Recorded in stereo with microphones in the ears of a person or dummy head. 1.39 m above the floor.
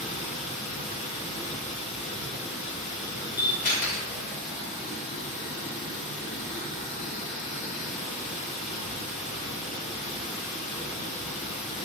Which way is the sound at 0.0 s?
35° left (ahead or behind).